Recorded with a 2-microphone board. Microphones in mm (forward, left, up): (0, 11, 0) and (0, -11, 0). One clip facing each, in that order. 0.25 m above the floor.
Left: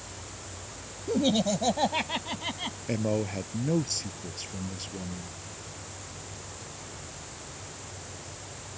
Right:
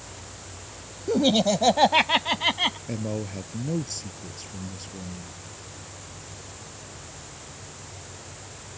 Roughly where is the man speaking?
Centre.